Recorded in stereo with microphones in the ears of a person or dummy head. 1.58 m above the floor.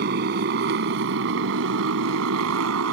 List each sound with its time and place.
0.0 s a motorcycle: 60° right (ahead or behind); by 2.9 s 80° right